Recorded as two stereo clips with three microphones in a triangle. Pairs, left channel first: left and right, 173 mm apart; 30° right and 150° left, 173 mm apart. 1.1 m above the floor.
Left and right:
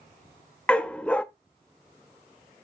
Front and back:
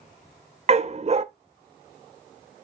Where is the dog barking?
170° left, 0.5 m.